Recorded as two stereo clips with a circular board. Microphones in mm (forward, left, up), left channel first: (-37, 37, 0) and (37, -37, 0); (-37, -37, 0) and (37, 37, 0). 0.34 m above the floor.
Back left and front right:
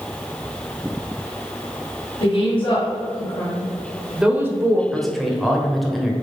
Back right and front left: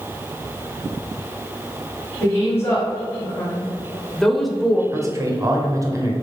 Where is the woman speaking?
160° left, 1.8 m; by 4.8 s 35° right, 1.0 m.